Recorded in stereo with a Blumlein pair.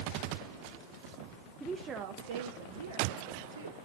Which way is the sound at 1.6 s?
5° right.